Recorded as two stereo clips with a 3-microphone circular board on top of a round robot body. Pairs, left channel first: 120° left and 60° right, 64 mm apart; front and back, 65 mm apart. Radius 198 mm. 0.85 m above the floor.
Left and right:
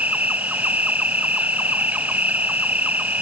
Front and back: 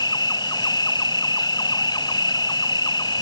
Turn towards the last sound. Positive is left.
turn(degrees=5)